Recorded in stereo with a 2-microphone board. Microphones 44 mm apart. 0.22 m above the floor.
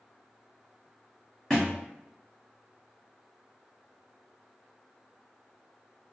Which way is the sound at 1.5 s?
5° left (ahead or behind).